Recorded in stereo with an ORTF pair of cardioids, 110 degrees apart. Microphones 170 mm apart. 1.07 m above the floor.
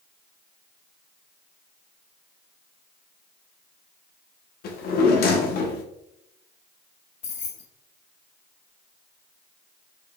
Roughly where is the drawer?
Left.